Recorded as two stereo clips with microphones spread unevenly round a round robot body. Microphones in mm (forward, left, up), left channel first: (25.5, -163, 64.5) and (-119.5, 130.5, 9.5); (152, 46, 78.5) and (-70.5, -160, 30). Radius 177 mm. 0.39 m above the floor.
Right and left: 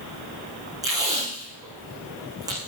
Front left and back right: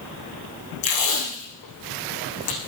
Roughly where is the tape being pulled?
Ahead left.